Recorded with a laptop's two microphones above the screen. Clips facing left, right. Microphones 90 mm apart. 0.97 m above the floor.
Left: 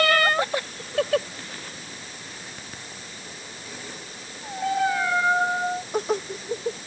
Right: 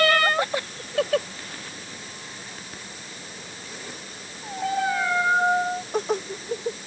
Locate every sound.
Only background noise.